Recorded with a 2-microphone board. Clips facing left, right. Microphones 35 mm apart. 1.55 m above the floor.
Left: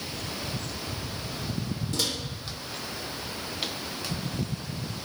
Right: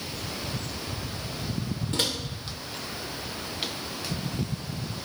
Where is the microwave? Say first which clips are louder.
Right 2 dB; 40° right (ahead or behind), 0.8 m.